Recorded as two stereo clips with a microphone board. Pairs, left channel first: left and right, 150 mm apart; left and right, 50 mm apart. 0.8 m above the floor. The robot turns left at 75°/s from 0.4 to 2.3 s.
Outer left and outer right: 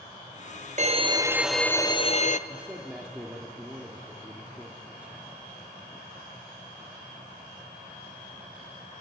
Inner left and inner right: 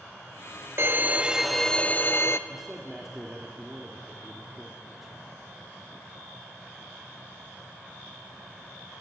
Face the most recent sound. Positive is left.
turn(degrees=-10)  # may be behind; listen again after turning